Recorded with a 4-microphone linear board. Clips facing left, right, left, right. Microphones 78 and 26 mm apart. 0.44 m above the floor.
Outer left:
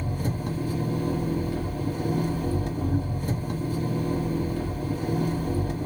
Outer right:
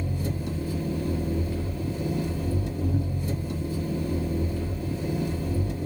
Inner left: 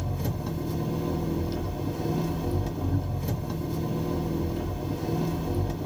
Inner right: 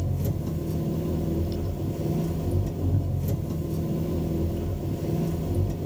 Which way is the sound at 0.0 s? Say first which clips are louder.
Outer left 1 dB, inner right 1 dB; 65° left (ahead or behind).